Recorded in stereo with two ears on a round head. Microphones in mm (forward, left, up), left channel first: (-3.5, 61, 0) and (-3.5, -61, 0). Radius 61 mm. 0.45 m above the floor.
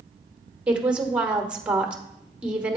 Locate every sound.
0.7 s a woman speaking: 10° right (ahead or behind), 1.1 m